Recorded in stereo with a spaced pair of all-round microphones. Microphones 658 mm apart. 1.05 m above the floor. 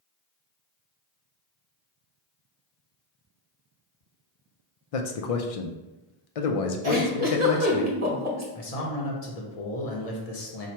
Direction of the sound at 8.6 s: 65° left (ahead or behind).